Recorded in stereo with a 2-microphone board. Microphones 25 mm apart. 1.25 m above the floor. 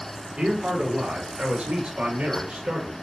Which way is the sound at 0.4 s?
45° right (ahead or behind).